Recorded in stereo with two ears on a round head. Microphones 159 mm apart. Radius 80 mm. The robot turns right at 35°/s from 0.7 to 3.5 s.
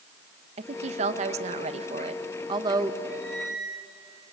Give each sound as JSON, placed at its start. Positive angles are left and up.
{"t": 0.6, "sound": "a woman speaking", "azimuth_deg": -110, "distance_m": 1.0}
{"t": 3.1, "sound": "a squeak", "side_deg": 5, "distance_m": 6.5}